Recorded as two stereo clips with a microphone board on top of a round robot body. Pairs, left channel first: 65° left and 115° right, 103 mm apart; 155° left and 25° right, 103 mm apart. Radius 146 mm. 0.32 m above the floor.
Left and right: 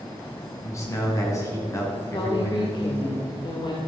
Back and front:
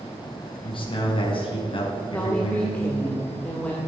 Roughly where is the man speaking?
Behind left.